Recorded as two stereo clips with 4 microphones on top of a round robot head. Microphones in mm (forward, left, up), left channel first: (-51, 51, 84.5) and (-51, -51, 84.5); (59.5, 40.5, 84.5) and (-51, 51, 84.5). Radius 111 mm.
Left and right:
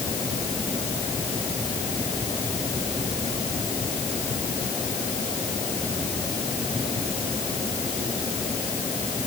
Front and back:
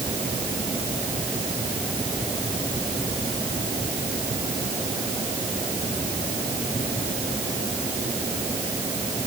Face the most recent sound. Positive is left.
No sound to turn to.